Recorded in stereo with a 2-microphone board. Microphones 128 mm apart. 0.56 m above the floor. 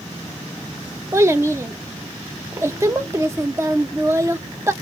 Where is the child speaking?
20° right (ahead or behind), 0.7 m.